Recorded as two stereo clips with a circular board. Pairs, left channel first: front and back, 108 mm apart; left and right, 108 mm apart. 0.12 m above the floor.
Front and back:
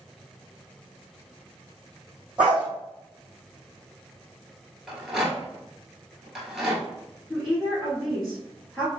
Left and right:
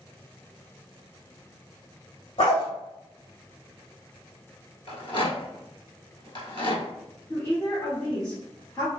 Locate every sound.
2.4 s a dog barking: 100° left, 1.9 m
4.9 s a rattle: 95° left, 1.1 m
7.3 s a woman speaking: 90° left, 1.5 m